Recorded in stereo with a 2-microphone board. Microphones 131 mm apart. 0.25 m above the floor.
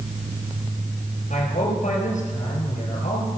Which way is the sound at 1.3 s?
65° left (ahead or behind).